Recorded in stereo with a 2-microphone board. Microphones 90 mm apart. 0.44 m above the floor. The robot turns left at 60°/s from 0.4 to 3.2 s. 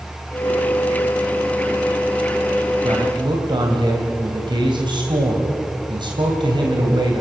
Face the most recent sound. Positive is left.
turn(degrees=-65)  # may be behind; listen again after turning